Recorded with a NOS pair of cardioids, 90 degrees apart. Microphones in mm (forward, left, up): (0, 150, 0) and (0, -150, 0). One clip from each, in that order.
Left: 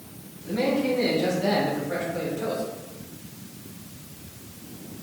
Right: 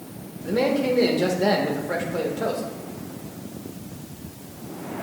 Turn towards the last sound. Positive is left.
turn(degrees=-60)